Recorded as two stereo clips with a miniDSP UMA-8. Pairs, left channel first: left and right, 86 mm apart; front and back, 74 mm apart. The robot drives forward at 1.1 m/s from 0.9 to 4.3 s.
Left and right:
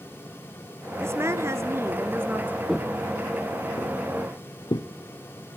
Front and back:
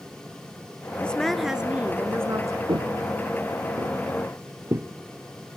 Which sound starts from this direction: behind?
Footsteps, at 2.7 s.